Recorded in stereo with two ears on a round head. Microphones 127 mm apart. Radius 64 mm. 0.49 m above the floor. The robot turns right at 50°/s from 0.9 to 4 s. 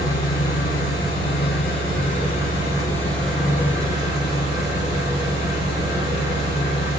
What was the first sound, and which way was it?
An engine running, 55° left.